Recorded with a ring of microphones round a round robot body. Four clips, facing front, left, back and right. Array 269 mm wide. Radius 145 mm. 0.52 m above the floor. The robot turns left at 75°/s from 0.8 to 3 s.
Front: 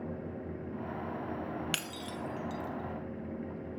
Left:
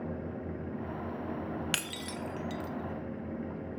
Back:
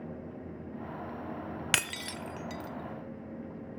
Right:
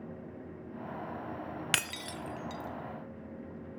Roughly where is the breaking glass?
Behind right.